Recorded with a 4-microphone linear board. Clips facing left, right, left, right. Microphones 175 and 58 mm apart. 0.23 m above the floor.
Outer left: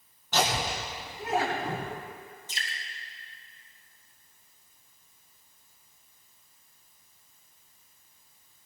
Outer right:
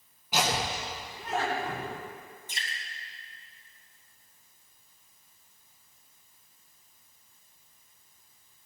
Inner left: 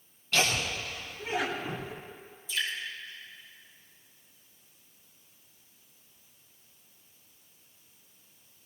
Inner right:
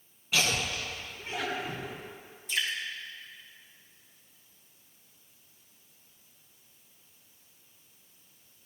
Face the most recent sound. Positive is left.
turn(degrees=-50)  # may be behind; listen again after turning